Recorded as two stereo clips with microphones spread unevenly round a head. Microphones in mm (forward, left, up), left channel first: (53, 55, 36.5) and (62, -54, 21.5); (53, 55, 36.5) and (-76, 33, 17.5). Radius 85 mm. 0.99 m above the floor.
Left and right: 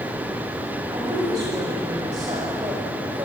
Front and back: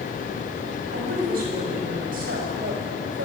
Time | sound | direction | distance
0.9 | a woman speaking | 150° right | 6.5 m